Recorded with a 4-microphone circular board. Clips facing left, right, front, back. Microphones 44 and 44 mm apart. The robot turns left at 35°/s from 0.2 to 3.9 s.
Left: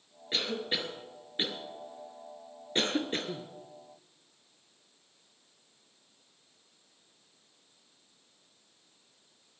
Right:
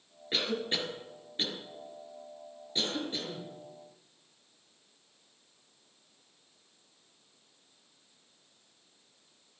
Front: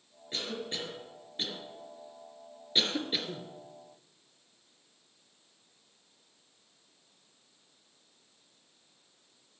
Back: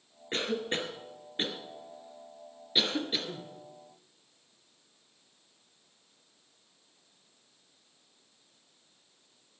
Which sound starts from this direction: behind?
A cough, at 0.3 s.